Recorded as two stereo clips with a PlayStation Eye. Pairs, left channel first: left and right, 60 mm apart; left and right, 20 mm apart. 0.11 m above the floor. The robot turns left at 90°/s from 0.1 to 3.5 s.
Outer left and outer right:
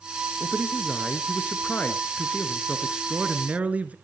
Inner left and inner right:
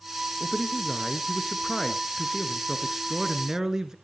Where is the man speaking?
15° right (ahead or behind), 1.5 m; by 4.0 s 25° right (ahead or behind), 1.5 m.